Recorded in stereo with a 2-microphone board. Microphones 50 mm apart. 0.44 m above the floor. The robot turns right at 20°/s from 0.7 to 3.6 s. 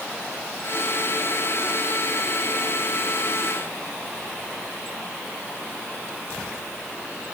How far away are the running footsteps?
No running footsteps in this recording.